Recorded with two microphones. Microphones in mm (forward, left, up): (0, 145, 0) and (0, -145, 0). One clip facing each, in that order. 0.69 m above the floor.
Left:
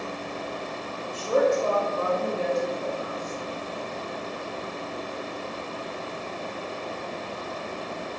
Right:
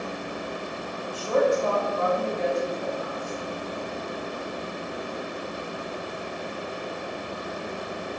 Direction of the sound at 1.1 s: 25° left (ahead or behind).